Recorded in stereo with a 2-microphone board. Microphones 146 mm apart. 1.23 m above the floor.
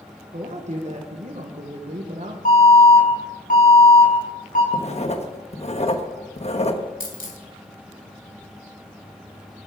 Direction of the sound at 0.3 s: 55° right (ahead or behind).